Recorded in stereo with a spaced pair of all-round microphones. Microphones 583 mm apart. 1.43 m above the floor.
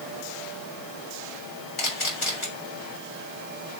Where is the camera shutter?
50° left (ahead or behind), 3.5 m.